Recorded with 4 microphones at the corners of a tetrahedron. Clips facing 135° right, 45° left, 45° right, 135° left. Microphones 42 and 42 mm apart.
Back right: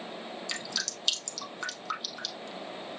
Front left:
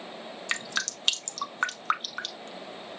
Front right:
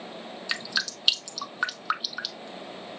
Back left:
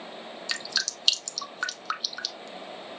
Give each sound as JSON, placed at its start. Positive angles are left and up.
{"t": 0.5, "sound": "dripping", "azimuth_deg": 25, "distance_m": 0.6}